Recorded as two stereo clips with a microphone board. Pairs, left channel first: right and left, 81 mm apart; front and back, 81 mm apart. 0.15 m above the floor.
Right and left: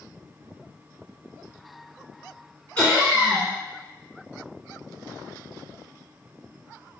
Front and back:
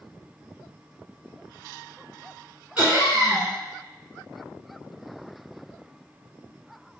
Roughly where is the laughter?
Behind right.